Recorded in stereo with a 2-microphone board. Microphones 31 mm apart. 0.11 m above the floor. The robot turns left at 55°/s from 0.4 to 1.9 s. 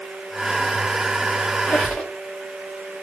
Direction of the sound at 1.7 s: 60° left (ahead or behind).